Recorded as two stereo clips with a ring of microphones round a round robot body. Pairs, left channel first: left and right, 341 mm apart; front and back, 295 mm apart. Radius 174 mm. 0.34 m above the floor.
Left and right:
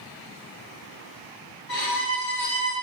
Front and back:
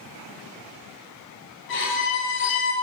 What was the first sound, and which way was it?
A violin, 45° left.